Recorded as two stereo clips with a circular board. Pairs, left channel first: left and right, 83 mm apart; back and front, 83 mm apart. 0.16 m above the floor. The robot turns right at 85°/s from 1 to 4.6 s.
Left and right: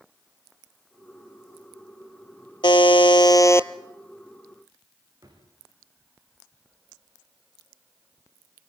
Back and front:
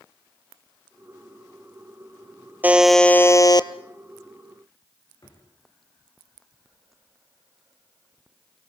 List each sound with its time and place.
2.6 s a buzzer: 65° left, 0.7 m; by 3.7 s 155° left, 0.7 m
5.2 s a drawer: 135° right, 7 m